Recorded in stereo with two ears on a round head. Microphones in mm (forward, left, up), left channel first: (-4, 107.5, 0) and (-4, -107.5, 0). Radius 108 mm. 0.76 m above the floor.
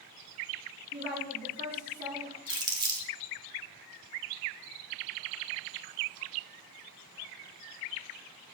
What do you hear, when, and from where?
0.9 s a woman speaking: 45° right (ahead or behind), 7 m
2.5 s crumpling: 20° right (ahead or behind), 2 m